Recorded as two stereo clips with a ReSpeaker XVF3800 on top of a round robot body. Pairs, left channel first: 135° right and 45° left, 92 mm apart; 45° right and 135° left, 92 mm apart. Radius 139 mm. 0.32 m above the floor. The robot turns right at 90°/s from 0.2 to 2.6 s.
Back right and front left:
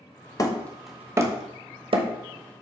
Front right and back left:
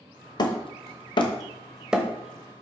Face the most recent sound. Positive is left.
turn(degrees=115)